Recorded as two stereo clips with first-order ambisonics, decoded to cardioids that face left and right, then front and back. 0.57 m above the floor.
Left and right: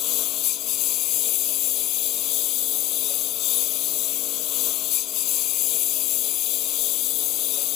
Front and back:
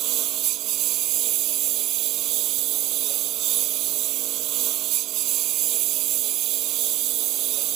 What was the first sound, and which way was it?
A lawn mower, 135° left.